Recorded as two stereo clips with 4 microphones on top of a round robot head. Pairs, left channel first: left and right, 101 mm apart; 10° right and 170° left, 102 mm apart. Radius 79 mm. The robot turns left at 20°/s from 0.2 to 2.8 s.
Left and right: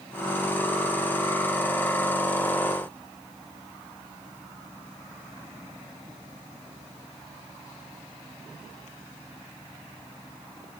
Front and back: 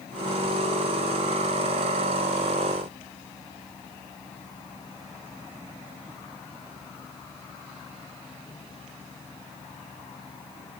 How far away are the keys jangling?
I don't hear keys jangling.